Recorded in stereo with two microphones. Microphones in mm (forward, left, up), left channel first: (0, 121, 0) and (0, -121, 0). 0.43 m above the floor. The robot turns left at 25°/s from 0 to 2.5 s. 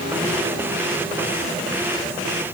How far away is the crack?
I don't hear a crack.